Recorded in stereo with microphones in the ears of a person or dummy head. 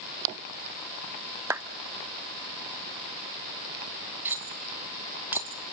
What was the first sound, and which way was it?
A clap, 10° right (ahead or behind).